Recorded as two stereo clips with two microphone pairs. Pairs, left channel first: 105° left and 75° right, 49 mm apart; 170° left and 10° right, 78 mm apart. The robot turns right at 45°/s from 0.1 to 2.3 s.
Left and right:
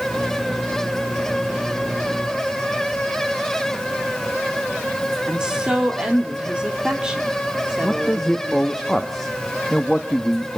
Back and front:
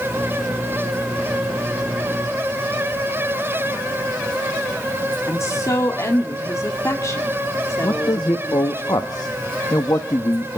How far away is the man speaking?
About 1.0 m.